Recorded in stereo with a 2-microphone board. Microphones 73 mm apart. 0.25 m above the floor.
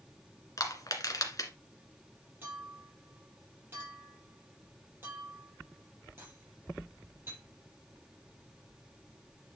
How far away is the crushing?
About 1.8 m.